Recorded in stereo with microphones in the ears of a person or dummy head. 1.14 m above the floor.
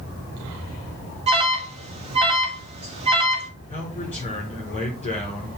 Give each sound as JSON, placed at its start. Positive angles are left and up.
{"t": 1.3, "sound": "an alarm", "side_deg": -35, "distance_m": 1.3}
{"t": 3.7, "sound": "a man speaking", "side_deg": 35, "distance_m": 4.5}